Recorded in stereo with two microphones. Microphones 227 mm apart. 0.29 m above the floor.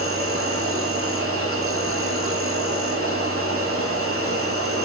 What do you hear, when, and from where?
0.0 s an insect: 75° right (ahead or behind), 3 m